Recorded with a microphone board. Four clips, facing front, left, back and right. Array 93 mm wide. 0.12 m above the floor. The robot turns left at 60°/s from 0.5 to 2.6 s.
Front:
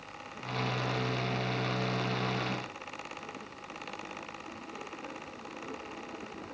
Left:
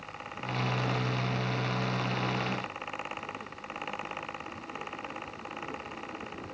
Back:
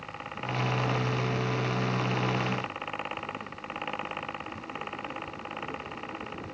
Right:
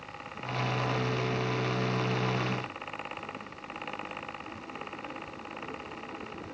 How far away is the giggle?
No giggle in this recording.